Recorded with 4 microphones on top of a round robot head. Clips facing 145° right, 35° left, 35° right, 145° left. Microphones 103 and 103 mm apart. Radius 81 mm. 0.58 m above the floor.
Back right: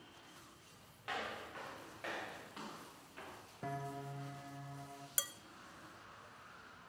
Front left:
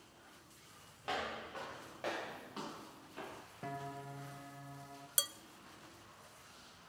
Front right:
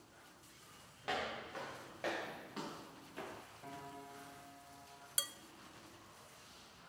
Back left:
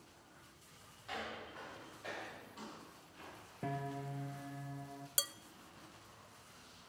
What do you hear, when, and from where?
1.0 s footsteps: 25° right, 5 m
3.6 s a piano: 130° left, 0.5 m
5.2 s dishes clattering: 100° left, 0.5 m